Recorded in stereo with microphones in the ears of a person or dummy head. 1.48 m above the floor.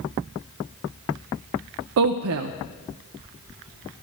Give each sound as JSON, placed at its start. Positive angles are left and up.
{"t": 2.0, "sound": "a woman speaking", "side_deg": -65, "distance_m": 0.6}